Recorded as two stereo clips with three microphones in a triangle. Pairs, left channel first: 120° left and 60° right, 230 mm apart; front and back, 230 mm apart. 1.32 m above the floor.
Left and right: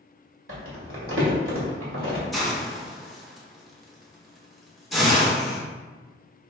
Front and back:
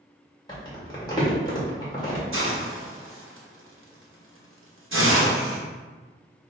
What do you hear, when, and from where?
0.5 s crumpling: 70° right, 1.8 m
2.3 s a hiss: 150° right, 1.0 m